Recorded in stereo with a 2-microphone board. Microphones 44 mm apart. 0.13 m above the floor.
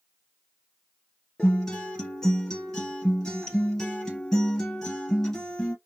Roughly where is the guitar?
Centre.